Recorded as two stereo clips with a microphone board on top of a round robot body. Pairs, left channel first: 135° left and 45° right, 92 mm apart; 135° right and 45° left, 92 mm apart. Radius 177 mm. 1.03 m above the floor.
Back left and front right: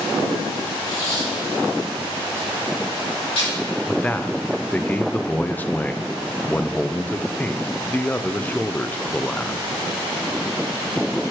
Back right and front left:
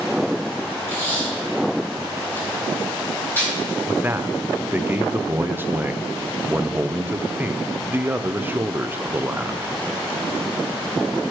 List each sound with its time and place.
0.9 s tape being pulled: 155° left, 4 m
3.9 s a man speaking: 85° left, 0.6 m